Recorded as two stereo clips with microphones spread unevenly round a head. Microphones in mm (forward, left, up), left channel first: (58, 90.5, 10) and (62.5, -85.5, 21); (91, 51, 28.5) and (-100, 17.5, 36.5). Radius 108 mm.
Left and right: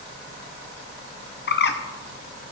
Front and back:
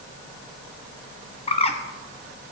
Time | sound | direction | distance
1.5 | a bird | 70° left | 1.0 m